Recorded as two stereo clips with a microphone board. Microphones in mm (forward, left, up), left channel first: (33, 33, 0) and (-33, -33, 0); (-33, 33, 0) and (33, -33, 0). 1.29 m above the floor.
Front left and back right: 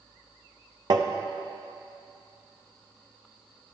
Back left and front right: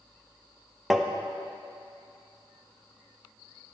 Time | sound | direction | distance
0.9 | tapping | 130° right | 0.7 m